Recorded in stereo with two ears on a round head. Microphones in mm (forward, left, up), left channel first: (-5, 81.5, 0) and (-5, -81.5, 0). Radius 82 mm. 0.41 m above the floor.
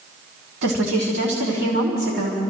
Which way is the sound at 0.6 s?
65° right (ahead or behind).